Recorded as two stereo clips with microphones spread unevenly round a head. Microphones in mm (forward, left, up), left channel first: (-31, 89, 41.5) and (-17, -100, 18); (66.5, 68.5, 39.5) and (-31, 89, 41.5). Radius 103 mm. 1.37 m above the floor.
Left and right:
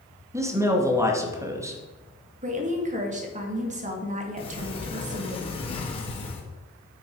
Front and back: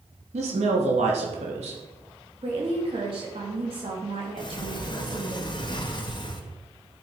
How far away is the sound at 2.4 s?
About 2.5 m.